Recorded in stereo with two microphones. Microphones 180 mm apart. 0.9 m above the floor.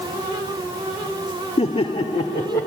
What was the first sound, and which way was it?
Laughter, 35° left (ahead or behind).